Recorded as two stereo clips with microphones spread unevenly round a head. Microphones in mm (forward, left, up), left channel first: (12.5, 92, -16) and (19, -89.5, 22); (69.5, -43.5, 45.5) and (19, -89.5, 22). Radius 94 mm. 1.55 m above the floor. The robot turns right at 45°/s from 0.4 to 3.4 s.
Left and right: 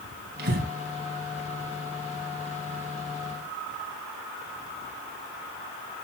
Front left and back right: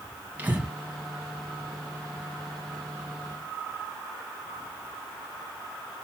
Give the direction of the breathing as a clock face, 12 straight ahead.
2 o'clock.